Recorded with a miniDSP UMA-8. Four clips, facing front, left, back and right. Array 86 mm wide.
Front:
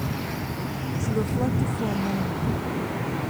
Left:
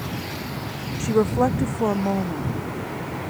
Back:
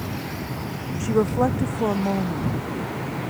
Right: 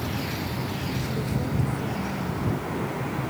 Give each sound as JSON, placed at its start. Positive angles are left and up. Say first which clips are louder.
{"t": 1.0, "sound": "a woman speaking", "louder": "left 15 dB, back 7 dB", "azimuth_deg": 125}